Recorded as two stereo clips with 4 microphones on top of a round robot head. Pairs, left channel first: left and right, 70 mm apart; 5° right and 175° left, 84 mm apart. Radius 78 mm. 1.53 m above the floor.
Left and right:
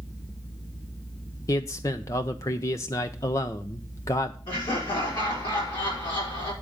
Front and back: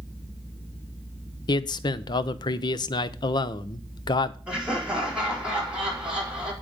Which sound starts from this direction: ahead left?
A man speaking, at 1.5 s.